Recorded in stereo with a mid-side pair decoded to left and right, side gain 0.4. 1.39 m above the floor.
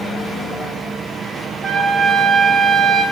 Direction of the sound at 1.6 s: 45° right.